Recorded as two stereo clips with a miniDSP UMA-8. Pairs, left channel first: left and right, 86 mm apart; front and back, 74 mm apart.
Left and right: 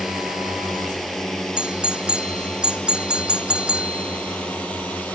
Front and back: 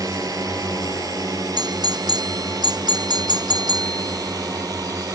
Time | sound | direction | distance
0.0 | a drone | 175° right | ?
1.6 | a doorbell | 170° right | ?